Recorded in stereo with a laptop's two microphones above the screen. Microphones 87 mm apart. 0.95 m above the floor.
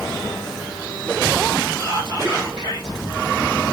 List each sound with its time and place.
1.8 s whispering: 65° right (ahead or behind), 2.5 m